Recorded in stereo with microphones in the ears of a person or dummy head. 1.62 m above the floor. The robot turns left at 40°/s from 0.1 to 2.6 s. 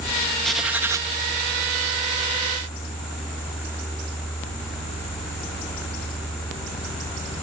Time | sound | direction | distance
0.4 | writing | 5° left (ahead or behind) | ?